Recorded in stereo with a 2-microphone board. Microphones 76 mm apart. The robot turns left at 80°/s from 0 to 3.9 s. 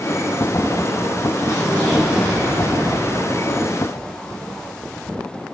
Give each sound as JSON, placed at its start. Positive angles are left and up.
{"t": 1.4, "sound": "an explosion", "azimuth_deg": 50, "distance_m": 4.5}